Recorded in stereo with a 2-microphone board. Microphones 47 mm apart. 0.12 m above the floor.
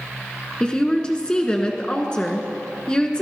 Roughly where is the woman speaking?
Centre.